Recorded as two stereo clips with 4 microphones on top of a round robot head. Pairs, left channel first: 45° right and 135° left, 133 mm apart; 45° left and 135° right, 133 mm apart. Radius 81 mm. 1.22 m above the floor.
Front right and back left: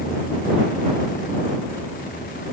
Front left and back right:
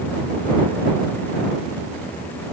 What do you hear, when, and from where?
Only background noise.